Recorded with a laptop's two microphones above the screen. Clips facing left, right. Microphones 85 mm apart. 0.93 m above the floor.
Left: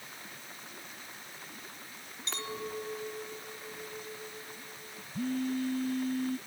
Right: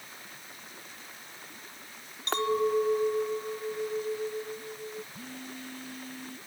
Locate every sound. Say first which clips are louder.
2.3 s a clink: right 13 dB; 60° right (ahead or behind)
5.1 s a phone buzzing: left 11 dB; 50° left (ahead or behind)